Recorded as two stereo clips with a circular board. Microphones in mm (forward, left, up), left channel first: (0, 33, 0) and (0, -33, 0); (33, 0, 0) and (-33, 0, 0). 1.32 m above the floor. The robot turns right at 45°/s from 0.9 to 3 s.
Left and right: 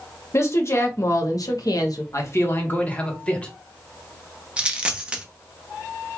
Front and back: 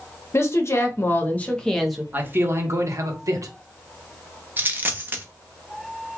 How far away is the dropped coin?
About 0.7 m.